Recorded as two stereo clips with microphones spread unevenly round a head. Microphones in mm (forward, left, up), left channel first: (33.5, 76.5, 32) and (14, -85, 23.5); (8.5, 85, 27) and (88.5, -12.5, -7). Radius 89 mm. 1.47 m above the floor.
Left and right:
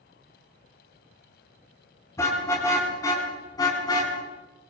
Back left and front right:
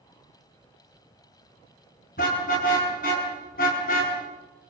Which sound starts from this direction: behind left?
A car horn, at 2.2 s.